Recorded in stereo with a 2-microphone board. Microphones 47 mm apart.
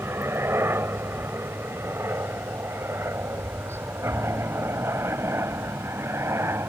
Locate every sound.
0.0 s a helicopter: 60° right (ahead or behind); by 6.7 s 70° right (ahead or behind)